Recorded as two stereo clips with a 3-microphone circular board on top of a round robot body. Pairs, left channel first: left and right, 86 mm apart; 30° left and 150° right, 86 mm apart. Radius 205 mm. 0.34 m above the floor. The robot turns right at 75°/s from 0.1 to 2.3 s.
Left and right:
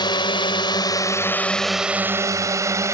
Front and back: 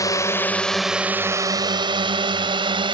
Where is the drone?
75° left; by 2.9 s 145° right.